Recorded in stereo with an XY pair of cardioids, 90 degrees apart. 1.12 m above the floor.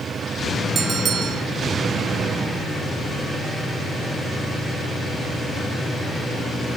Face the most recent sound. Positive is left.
turn(degrees=-70)